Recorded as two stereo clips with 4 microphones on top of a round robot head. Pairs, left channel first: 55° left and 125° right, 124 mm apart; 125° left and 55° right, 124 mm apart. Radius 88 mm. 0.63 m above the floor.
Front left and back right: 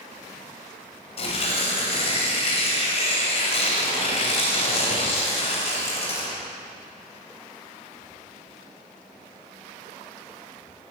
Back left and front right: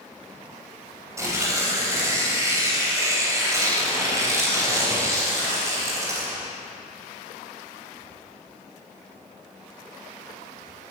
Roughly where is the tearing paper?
Ahead.